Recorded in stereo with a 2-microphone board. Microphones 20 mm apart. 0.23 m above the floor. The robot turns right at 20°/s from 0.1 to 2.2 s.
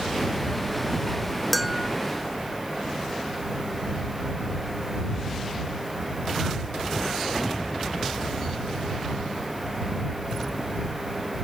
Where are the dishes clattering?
5° right (ahead or behind); by 1.9 s 10° right (ahead or behind).